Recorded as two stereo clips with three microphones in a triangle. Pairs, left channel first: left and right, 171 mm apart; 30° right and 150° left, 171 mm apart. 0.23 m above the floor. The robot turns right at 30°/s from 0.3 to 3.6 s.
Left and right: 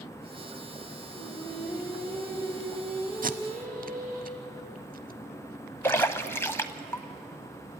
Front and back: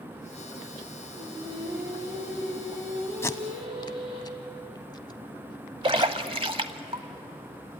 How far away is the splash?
About 0.8 m.